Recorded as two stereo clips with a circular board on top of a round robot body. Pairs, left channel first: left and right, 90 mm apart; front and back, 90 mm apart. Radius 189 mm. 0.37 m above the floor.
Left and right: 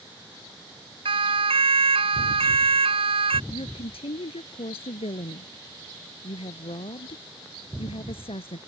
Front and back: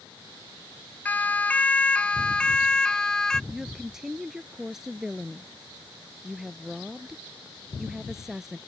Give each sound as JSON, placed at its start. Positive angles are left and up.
{"t": 1.1, "sound": "a siren", "azimuth_deg": -70}
{"t": 3.5, "sound": "a woman speaking", "azimuth_deg": 95}